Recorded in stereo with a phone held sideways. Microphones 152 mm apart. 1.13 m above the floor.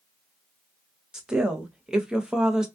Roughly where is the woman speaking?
Centre.